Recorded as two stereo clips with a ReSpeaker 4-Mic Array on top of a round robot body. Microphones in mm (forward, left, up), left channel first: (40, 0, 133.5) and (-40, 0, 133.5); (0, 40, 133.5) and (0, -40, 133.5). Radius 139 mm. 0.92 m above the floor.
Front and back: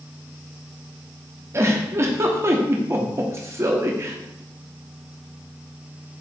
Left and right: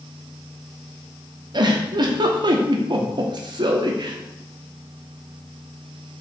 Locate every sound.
1.5 s a giggle: 120° right, 1.2 m